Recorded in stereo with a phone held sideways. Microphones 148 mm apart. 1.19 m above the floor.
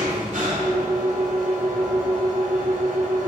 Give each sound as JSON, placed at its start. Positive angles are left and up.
{"t": 0.0, "sound": "an engine running", "side_deg": -60, "distance_m": 3.5}